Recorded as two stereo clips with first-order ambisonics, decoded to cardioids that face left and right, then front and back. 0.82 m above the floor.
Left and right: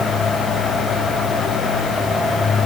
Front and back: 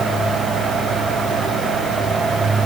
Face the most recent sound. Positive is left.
No sound to turn to.